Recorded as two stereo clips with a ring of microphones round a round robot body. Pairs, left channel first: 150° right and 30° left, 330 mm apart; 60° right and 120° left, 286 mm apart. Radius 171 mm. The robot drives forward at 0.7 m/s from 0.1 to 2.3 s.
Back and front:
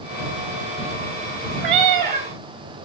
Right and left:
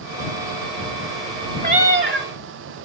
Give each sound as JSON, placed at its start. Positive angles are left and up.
{"t": 1.6, "sound": "a cat meowing", "azimuth_deg": 60, "distance_m": 2.5}